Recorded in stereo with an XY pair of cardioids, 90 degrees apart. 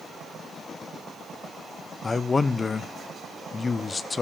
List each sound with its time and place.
2.0 s a man speaking: 35° left, 0.7 m